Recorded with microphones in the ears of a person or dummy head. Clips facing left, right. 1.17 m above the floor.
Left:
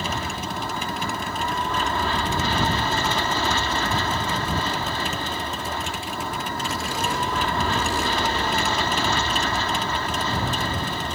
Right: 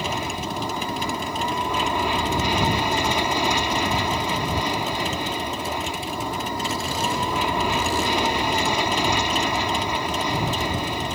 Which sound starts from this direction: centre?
An aircraft, at 0.0 s.